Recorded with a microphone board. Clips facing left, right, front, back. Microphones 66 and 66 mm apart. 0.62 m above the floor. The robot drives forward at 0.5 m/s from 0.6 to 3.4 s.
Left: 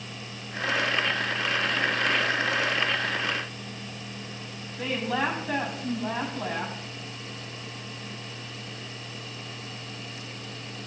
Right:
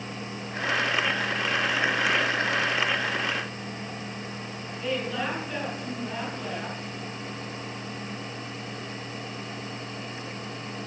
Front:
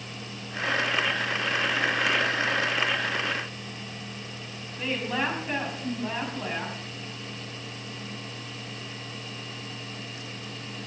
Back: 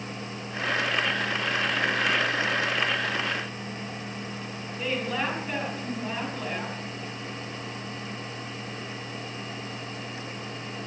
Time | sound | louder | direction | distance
4.8 | a woman speaking | left 2 dB, even | 80° left | 5.5 m